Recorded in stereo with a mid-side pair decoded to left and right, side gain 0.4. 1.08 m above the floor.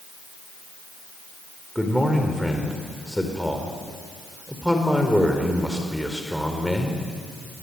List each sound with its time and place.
1.8 s a man speaking: straight ahead, 4.5 m